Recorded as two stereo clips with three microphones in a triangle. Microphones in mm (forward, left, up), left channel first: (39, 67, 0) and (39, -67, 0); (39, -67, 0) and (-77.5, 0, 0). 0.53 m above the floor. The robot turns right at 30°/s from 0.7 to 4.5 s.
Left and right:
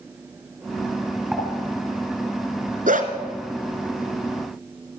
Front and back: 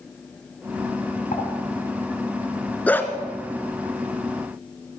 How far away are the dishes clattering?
About 4 m.